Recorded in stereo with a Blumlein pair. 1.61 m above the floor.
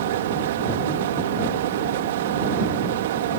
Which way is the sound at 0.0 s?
60° right.